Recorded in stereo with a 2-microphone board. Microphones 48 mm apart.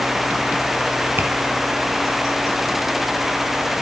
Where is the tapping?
55° right (ahead or behind), 3 m.